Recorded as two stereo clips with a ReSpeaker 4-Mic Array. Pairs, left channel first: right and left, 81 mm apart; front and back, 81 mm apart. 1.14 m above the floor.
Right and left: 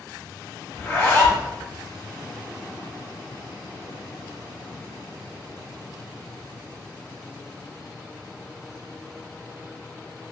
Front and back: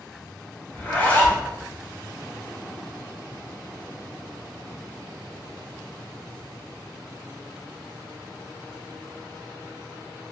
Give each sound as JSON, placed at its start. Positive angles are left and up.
{"t": 0.7, "sound": "a zipper", "azimuth_deg": -50, "distance_m": 1.0}